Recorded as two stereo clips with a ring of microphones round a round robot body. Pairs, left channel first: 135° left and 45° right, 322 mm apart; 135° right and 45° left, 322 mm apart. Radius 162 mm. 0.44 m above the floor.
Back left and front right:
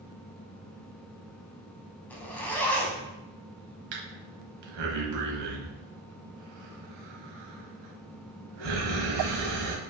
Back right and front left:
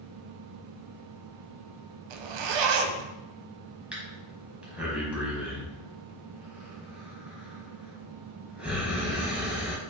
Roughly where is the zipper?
Ahead left.